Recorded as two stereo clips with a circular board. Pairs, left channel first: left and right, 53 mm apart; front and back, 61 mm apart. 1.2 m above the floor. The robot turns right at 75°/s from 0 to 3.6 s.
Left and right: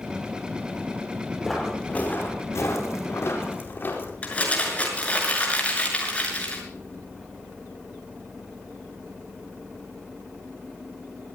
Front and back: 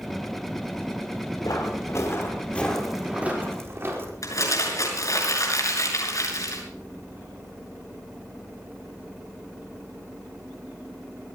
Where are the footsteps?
5° right, 5 m; by 4.1 s 135° left, 4.5 m.